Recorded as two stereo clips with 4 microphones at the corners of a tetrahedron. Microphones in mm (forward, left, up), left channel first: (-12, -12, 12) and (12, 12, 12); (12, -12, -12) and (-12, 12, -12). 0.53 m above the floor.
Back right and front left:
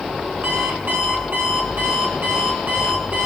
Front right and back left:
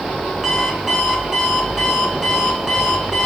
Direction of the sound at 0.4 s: 55° left.